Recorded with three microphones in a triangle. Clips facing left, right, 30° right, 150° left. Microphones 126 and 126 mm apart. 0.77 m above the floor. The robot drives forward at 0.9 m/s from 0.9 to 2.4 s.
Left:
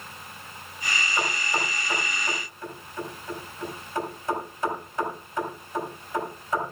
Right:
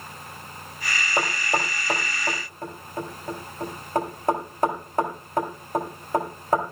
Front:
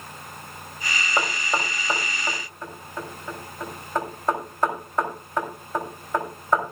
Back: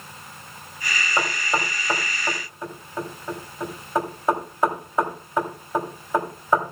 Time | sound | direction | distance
1.2 | knocking | 110° right | 3 m